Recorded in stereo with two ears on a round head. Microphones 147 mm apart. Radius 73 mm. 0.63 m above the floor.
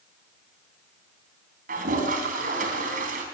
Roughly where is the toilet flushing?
Right.